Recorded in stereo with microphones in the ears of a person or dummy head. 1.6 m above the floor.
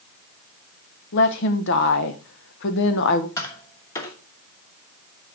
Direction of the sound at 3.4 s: 15° left (ahead or behind).